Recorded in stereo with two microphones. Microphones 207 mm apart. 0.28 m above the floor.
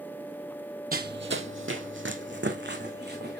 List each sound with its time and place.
0.9 s running footsteps: 45° right (ahead or behind), 0.6 m; by 3.4 s 55° right (ahead or behind), 1.8 m